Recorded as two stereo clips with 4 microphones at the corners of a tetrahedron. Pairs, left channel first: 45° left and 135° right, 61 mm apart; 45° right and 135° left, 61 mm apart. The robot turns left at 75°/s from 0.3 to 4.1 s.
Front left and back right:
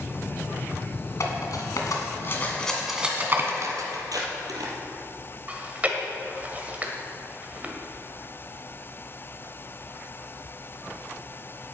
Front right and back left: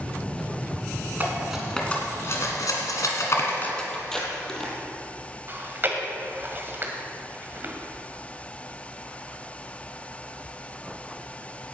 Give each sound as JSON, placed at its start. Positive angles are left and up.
{"t": 1.2, "sound": "cutlery clinking", "azimuth_deg": 75, "distance_m": 2.0}
{"t": 3.9, "sound": "tape being pulled", "azimuth_deg": -115, "distance_m": 2.5}
{"t": 5.5, "sound": "chewing", "azimuth_deg": 170, "distance_m": 1.5}